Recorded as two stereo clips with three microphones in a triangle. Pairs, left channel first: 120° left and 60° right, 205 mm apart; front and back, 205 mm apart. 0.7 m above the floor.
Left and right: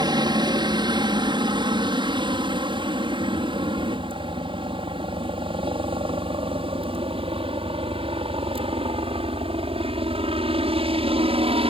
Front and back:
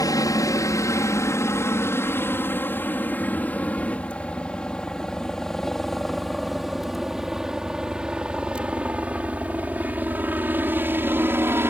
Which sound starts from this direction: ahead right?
A helicopter, at 0.0 s.